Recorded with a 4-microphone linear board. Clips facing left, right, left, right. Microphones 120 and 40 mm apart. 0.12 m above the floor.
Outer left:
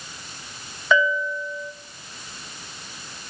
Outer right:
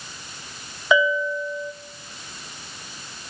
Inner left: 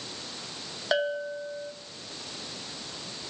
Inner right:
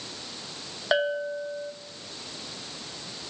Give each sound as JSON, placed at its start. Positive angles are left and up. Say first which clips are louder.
{"t": 0.9, "sound": "a bell", "louder": "outer right 1 dB, inner right 2 dB", "side_deg": -15, "distance_m": 1.0}